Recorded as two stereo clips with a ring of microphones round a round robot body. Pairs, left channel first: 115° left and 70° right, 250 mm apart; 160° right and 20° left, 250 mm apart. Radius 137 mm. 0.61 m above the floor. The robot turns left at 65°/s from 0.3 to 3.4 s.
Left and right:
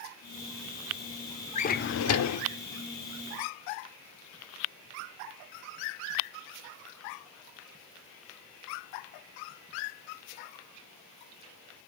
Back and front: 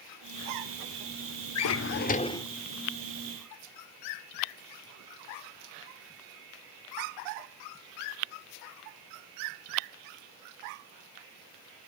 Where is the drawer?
Straight behind, 0.8 m; by 2.5 s 120° left, 0.8 m.